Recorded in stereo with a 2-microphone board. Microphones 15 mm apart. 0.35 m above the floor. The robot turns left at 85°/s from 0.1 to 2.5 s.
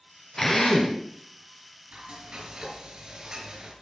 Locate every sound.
0.4 s a drill: 155° left, 3 m; by 1.0 s 105° left, 3 m
1.9 s frying: 80° right, 6.5 m; by 3.7 s 130° right, 6.5 m